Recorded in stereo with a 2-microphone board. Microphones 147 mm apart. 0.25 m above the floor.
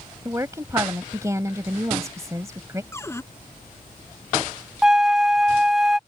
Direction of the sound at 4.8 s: 5° right (ahead or behind).